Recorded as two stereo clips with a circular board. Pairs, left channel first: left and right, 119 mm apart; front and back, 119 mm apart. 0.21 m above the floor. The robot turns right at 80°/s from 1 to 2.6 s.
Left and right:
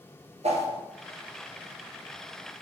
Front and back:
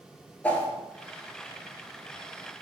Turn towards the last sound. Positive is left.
turn(degrees=50)